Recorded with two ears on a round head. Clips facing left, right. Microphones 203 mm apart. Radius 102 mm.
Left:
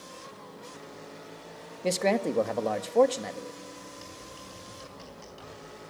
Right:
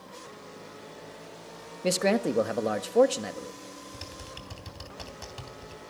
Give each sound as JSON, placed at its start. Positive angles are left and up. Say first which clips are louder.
{"t": 1.8, "sound": "a man speaking", "louder": "right 1 dB", "side_deg": -10, "distance_m": 1.3}
{"t": 3.9, "sound": "typing on a keyboard", "louder": "right 1 dB", "side_deg": -75, "distance_m": 3.5}